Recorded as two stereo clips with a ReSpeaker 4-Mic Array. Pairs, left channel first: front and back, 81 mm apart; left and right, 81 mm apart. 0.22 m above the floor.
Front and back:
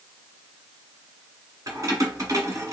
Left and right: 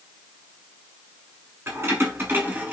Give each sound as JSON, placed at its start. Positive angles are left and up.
{"t": 1.7, "sound": "keys jangling", "azimuth_deg": -140, "distance_m": 1.5}